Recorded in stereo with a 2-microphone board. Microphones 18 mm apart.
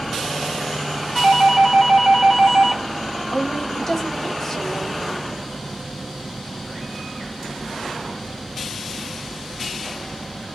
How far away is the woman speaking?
About 1.1 m.